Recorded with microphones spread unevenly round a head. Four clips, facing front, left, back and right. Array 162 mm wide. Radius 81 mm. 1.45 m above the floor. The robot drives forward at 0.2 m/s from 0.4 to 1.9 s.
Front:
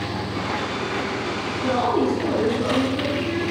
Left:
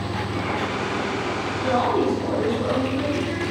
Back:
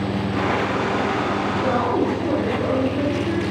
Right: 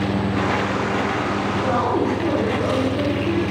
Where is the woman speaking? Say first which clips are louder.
Left 1 dB, front 2 dB; 125° right, 1.9 m.